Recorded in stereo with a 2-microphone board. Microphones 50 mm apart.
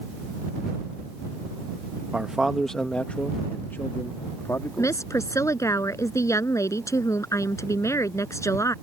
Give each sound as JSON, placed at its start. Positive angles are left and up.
{"t": 2.1, "sound": "a man speaking", "side_deg": -20}
{"t": 4.8, "sound": "a woman speaking", "side_deg": 85}